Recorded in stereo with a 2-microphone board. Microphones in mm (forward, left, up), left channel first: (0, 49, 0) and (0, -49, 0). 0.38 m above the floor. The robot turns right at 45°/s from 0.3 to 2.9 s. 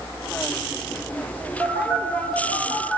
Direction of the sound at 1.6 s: 20° right (ahead or behind).